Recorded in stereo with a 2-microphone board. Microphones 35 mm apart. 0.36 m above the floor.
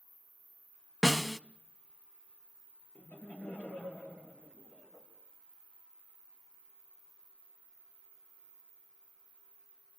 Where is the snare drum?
15° left (ahead or behind), 0.6 m.